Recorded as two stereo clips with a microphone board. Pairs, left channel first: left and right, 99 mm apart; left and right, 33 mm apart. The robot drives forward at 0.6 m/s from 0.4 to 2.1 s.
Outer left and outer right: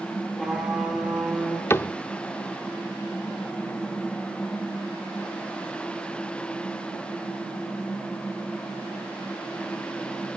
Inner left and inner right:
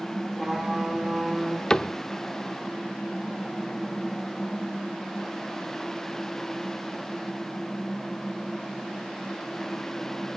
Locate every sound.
0.4 s a trumpet: centre (ahead or behind), 6 m
1.7 s a cupboard door: 25° left (ahead or behind), 0.7 m; by 1.9 s 20° left (ahead or behind), 0.8 m